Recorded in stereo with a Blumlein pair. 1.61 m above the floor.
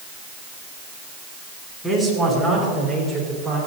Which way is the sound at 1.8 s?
5° left.